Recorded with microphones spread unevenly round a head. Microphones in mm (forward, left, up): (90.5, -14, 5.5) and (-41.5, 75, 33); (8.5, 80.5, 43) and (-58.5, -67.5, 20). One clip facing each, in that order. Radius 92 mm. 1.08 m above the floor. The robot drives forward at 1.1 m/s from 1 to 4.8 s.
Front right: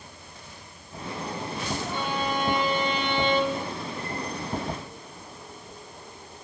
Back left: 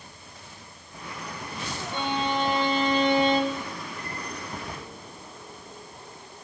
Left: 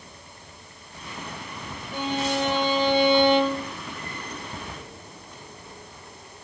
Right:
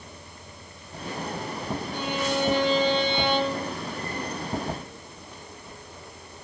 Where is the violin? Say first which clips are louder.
Back left 4 dB, left 3 dB; 80° left, 5 m; by 3.7 s 100° left, 5 m.